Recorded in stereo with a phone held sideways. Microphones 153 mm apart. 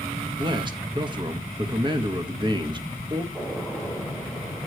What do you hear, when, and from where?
0.4 s a man speaking: 30° right (ahead or behind), 1.4 m
3.3 s a gunshot: 5° right (ahead or behind), 7 m